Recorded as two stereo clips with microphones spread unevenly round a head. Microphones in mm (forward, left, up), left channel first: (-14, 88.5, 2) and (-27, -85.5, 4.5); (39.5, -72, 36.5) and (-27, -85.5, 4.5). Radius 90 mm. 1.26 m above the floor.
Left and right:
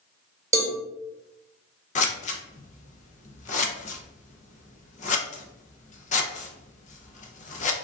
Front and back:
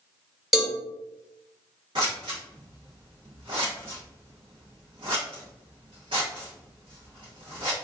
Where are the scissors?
125° left, 0.5 m.